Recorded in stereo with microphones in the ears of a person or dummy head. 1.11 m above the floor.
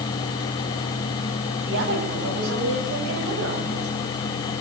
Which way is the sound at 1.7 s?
65° right (ahead or behind).